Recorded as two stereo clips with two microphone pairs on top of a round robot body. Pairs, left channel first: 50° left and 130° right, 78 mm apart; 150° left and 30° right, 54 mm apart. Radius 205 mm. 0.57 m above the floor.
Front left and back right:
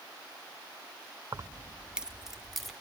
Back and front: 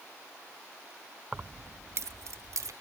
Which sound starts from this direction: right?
Keys jangling, at 1.3 s.